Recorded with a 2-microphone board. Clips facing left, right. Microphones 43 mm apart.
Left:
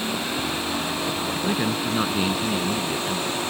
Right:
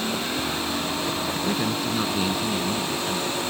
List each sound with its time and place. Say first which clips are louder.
1.4 s a man speaking: left 2 dB; 20° left (ahead or behind)